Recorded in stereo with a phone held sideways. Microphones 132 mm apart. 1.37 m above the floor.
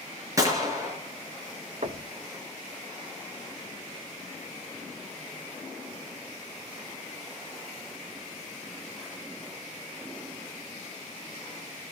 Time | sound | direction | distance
0.4 | a gunshot | 25° right (ahead or behind) | 4 m
1.8 | knocking | 55° right (ahead or behind) | 1.4 m